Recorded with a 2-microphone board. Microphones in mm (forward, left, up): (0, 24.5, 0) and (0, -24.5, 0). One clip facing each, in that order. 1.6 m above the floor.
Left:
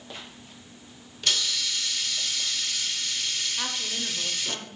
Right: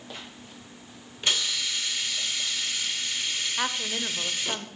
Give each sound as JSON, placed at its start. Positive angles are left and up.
{"t": 1.2, "sound": "a hiss", "side_deg": -20, "distance_m": 0.7}
{"t": 3.6, "sound": "a woman speaking", "side_deg": -30, "distance_m": 0.7}